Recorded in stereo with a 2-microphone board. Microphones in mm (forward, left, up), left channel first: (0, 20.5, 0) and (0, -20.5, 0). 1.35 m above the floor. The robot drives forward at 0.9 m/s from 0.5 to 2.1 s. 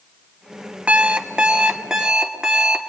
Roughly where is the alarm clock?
Right.